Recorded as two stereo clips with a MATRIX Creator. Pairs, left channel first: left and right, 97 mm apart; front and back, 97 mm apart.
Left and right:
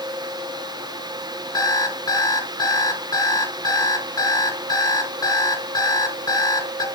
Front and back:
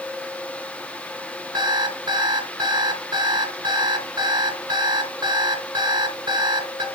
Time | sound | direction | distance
1.5 | an alarm clock | 135° left | 3 m